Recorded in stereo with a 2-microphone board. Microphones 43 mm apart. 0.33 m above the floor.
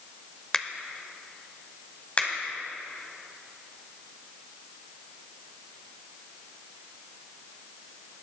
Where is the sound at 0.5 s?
15° left (ahead or behind), 0.7 m.